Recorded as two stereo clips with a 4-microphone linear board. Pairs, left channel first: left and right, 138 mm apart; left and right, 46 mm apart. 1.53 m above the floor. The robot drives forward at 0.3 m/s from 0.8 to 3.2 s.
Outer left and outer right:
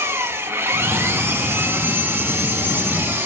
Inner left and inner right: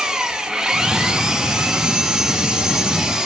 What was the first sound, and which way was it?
An engine running, 15° right (ahead or behind).